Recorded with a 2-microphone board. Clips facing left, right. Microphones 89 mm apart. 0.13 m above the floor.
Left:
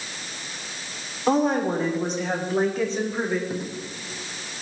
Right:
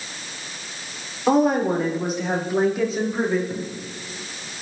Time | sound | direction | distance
1.3 | a woman speaking | 5° right (ahead or behind) | 6 m
3.5 | a dropped coin | 20° left (ahead or behind) | 3.5 m